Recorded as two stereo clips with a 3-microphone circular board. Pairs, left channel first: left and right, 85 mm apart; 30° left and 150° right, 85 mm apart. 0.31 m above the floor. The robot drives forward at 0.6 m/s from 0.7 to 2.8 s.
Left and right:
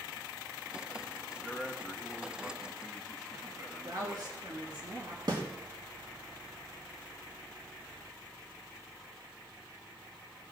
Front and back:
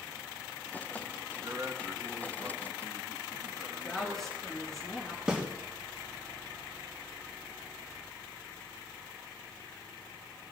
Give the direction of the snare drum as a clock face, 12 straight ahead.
2 o'clock.